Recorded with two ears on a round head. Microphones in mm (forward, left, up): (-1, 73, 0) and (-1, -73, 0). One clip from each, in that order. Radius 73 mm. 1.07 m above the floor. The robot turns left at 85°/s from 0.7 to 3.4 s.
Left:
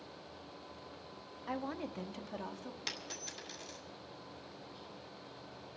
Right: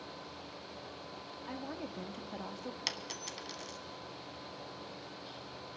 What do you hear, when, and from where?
1.5 s a woman speaking: 70° left, 0.6 m; by 2.8 s 40° right, 0.6 m
2.9 s a dropped coin: 45° right (ahead or behind), 1.3 m; by 3.8 s 35° right (ahead or behind), 1.3 m